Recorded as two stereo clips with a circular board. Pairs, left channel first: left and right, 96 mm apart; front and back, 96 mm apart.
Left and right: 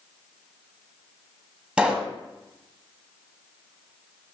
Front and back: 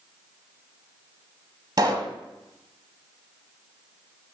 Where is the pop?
165° right, 0.8 m.